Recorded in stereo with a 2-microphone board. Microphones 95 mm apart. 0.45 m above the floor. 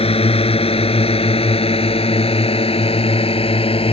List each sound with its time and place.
0.0 s a drone: 80° left; by 3.9 s 75° left (ahead or behind)